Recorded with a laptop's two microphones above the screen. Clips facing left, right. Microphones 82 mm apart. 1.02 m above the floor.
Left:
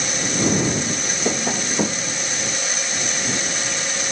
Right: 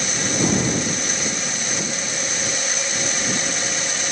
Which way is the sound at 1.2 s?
50° left (ahead or behind).